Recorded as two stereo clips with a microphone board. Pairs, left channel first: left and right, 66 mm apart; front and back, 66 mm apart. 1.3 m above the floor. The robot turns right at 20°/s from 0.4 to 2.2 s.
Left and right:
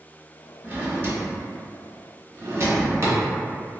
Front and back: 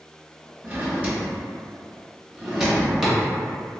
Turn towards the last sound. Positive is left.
turn(degrees=-100)